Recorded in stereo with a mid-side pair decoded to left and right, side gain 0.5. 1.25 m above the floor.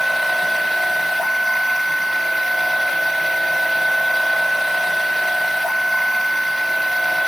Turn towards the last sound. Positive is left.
turn(degrees=5)